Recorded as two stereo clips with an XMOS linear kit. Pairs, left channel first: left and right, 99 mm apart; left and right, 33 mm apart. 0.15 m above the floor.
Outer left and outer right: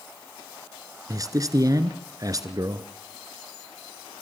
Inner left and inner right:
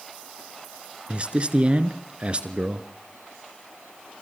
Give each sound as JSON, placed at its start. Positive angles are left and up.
{"t": 1.1, "sound": "a man speaking", "side_deg": -35, "distance_m": 2.0}